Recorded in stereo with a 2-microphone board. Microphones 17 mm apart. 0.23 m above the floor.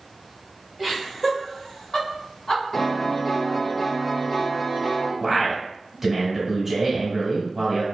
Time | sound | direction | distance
0.8 | laughter | 5° right (ahead or behind) | 1.2 m
2.7 | a piano | 30° left (ahead or behind) | 0.8 m
5.2 | a man speaking | 20° right (ahead or behind) | 1.0 m